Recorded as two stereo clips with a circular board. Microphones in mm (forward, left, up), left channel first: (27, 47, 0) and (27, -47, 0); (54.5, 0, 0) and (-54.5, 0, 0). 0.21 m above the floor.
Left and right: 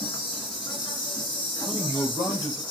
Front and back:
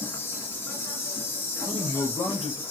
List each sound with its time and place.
0.0 s an insect: 65° left, 1.8 m
1.6 s a man speaking: 40° left, 3.5 m